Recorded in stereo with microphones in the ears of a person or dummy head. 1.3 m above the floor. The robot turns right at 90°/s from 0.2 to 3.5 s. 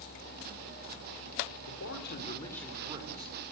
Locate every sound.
1.7 s a man speaking: 85° left, 4 m; by 3.3 s 120° right, 4 m